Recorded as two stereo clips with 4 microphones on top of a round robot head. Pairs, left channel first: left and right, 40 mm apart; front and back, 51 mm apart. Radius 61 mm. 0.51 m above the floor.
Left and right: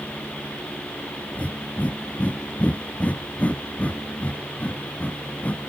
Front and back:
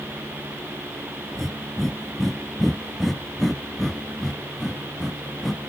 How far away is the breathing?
About 0.6 m.